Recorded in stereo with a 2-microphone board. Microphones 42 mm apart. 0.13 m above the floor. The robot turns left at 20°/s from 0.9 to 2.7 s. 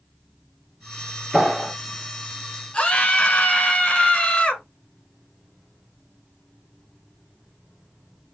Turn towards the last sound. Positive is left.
turn(degrees=30)  # may be behind; listen again after turning